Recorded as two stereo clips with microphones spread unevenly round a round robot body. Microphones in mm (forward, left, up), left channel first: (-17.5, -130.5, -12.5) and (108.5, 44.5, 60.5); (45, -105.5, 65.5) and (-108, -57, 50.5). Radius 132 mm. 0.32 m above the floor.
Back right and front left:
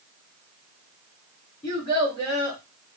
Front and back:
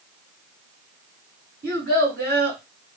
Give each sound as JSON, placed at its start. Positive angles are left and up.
{"t": 1.6, "sound": "a child speaking", "azimuth_deg": 145, "distance_m": 2.5}